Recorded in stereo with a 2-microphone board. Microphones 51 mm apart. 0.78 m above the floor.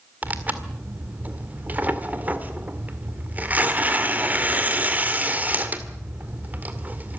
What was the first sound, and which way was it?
Tearing paper, 30° right (ahead or behind).